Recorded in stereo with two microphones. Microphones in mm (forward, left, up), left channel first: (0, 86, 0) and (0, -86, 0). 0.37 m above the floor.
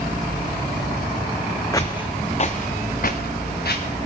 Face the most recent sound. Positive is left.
turn(degrees=70)  # may be behind; listen again after turning